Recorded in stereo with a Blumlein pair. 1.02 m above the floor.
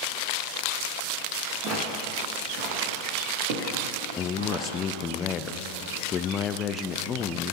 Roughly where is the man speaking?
Ahead left.